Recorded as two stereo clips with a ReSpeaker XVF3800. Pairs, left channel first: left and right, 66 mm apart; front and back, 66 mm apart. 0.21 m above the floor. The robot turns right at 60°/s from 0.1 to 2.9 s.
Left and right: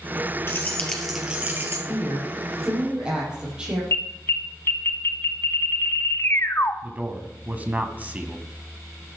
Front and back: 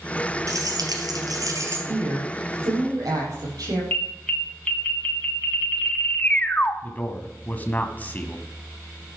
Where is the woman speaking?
135° left, 7.5 m; by 3.8 s 165° right, 7.5 m.